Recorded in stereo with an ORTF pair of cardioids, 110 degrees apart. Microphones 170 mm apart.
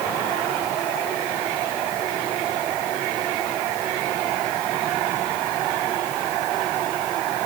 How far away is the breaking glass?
No breaking glass in this recording.